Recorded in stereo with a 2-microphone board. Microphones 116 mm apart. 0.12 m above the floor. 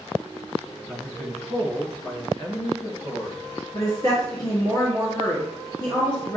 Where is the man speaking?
15° left (ahead or behind), 1.5 m; by 3.4 s 45° left (ahead or behind), 1.8 m.